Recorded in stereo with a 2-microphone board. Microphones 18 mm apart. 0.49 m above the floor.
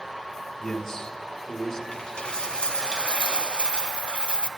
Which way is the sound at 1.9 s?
75° left (ahead or behind).